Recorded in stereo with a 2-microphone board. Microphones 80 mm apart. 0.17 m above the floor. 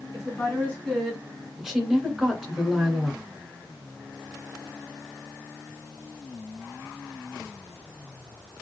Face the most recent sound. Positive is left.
turn(degrees=-5)  # may be behind; listen again after turning